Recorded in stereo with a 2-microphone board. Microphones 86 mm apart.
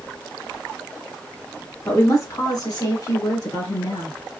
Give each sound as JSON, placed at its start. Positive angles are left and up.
{"t": 1.9, "sound": "a woman speaking", "side_deg": 35, "distance_m": 1.3}